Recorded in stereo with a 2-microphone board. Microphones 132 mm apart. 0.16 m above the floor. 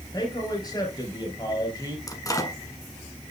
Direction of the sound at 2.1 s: 25° left (ahead or behind).